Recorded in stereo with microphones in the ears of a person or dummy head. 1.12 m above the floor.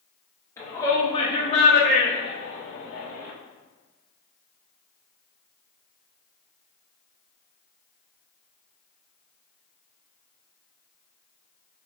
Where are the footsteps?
I don't hear footsteps.